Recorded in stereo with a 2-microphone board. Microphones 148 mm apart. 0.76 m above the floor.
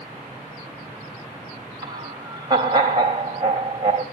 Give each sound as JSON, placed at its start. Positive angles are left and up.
{"t": 1.8, "sound": "laughter", "side_deg": -30, "distance_m": 3.5}